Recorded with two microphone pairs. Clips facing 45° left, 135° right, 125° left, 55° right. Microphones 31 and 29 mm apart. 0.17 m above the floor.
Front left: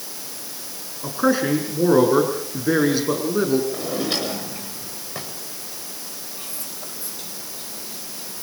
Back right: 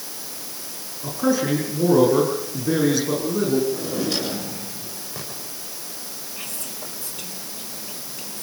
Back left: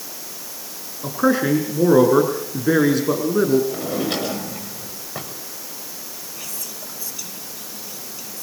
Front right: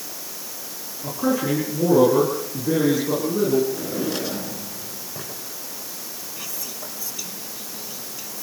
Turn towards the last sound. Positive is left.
turn(degrees=-140)